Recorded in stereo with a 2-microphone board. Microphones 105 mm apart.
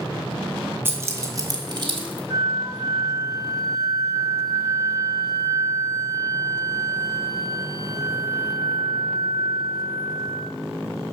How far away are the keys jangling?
About 1.6 m.